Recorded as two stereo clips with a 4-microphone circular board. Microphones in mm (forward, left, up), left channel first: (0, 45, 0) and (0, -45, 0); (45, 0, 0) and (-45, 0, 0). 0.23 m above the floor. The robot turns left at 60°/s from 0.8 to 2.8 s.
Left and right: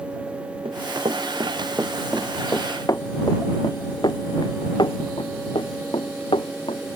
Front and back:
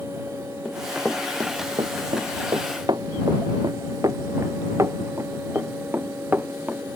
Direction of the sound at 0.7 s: 85° right.